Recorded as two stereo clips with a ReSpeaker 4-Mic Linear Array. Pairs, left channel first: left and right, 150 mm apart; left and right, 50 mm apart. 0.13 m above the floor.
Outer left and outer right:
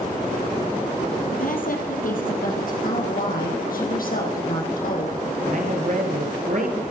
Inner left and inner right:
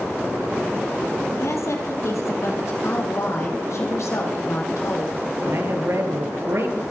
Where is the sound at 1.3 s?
65° left (ahead or behind), 3 m.